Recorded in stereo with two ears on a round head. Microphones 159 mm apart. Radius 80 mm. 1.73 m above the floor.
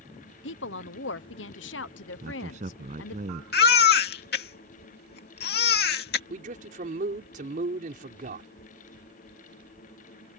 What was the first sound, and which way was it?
A woman speaking, 80° left.